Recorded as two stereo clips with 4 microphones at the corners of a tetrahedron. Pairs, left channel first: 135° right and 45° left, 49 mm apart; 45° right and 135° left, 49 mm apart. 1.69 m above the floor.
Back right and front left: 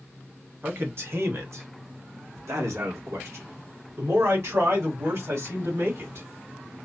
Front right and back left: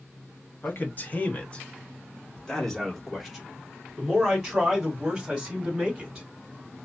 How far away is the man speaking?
About 1.4 m.